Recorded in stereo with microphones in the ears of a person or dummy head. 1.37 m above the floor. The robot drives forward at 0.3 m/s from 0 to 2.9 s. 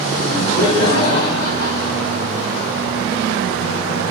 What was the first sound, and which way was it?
Laughter, 70° left (ahead or behind).